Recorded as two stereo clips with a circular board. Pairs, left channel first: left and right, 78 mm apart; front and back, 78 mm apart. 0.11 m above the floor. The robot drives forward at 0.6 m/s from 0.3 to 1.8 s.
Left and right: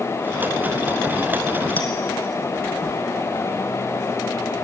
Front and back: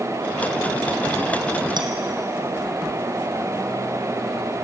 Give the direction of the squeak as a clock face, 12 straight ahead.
No squeak in this recording.